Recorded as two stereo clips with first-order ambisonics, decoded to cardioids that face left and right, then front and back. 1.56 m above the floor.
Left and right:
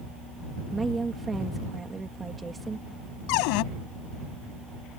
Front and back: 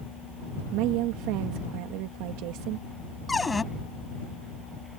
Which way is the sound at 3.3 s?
80° left.